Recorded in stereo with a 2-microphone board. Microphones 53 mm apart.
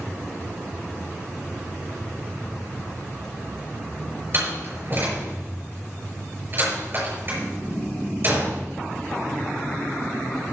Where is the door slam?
40° right (ahead or behind), 5.5 m.